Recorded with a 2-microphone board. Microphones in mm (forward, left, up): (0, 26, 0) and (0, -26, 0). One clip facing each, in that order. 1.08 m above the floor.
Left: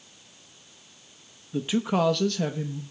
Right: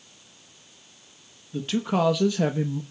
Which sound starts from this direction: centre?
A man speaking, at 1.5 s.